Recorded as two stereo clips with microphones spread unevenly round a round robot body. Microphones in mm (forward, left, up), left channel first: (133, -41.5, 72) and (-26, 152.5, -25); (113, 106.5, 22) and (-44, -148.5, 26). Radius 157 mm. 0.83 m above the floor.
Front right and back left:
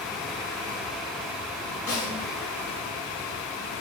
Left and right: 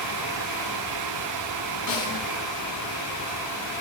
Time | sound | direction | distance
1.9 | a snare drum | 25° left | 3.5 m